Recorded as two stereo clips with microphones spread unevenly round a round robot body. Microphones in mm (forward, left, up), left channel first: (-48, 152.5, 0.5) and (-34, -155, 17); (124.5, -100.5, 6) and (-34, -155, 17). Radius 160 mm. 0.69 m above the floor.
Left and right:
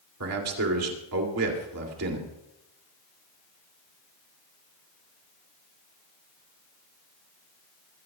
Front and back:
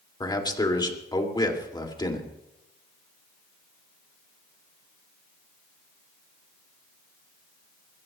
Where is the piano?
I don't hear a piano.